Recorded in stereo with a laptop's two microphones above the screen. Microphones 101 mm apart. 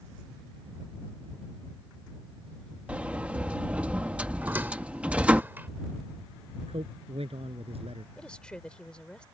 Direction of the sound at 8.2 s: 10° left (ahead or behind).